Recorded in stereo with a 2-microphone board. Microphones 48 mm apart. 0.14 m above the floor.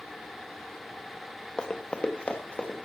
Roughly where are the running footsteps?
Centre.